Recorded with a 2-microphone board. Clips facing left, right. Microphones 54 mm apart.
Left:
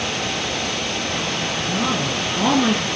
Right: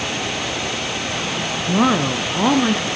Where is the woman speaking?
50° right (ahead or behind), 1.6 m; by 2.9 s centre (ahead or behind), 1.4 m.